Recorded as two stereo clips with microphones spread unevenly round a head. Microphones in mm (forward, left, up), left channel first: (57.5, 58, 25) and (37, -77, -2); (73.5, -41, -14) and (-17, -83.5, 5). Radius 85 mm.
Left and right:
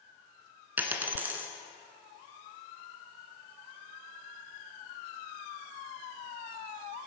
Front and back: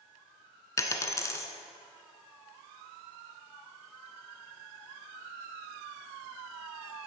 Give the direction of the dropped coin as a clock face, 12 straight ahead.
12 o'clock.